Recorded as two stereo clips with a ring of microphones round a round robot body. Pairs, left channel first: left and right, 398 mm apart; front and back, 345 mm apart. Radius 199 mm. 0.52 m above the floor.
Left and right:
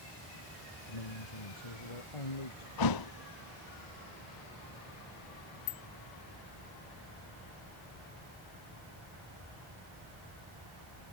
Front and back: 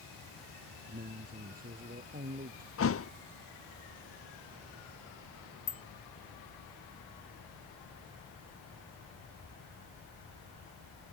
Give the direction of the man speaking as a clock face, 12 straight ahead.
8 o'clock.